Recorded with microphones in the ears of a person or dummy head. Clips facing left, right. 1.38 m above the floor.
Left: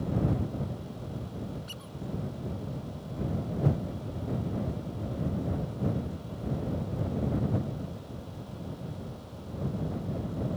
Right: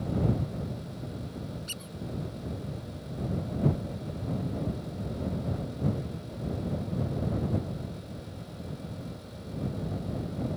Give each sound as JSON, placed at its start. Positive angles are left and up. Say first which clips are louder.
{"t": 1.7, "sound": "a squeak", "louder": "right 1 dB", "side_deg": -30}